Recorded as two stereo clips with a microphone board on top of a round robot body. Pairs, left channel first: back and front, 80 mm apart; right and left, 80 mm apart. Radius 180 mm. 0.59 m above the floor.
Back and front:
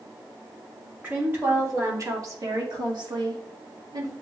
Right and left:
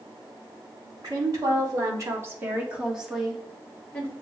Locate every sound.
1.0 s a woman speaking: 60° left, 2.5 m; by 4.1 s 30° right, 1.9 m